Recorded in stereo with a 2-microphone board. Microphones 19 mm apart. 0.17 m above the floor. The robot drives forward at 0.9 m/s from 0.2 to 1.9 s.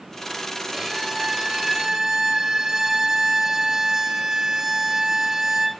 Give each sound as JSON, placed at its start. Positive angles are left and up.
{"t": 0.7, "sound": "a violin", "side_deg": -15, "distance_m": 3.0}